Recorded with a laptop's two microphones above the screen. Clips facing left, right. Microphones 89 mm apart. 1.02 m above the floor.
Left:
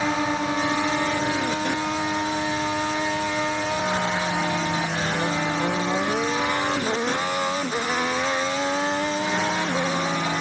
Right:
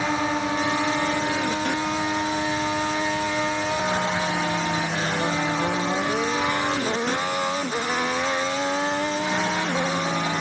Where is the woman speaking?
I don't hear a woman speaking.